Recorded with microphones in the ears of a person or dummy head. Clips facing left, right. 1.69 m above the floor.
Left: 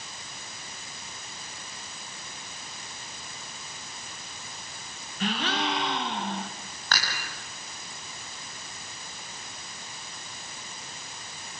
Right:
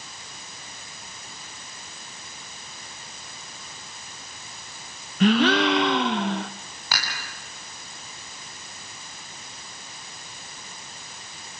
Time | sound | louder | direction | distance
5.2 | a gasp | right 11 dB | 50° right (ahead or behind) | 0.7 m
6.9 | dishes clattering | even | 10° right (ahead or behind) | 7.5 m